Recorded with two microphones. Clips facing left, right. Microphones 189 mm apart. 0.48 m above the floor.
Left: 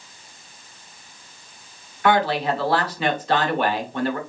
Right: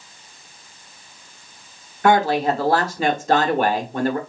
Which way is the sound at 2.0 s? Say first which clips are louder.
Right 3 dB; 45° right (ahead or behind).